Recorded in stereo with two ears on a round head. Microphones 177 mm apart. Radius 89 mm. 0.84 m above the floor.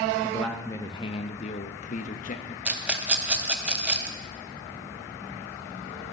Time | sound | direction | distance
0.2 | a man speaking | centre (ahead or behind) | 0.8 m
2.6 | a rattle | 5° right (ahead or behind) | 0.5 m